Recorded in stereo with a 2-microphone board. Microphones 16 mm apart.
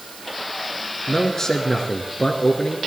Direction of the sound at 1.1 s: 40° left (ahead or behind).